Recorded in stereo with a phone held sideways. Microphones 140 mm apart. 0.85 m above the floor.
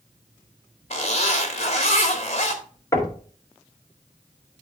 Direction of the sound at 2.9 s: 25° left (ahead or behind).